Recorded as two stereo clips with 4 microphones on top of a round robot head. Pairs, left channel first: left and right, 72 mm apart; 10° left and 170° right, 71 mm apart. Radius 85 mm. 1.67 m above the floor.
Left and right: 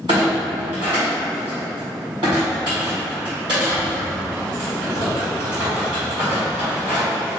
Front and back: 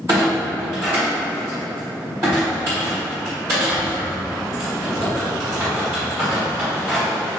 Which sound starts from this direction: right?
A clunk, at 0.1 s.